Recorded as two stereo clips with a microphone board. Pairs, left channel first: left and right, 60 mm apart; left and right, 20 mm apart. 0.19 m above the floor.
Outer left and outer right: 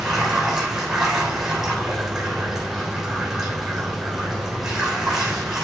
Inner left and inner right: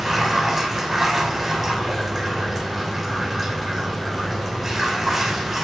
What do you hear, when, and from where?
0.0 s running water: 5° right (ahead or behind), 3 m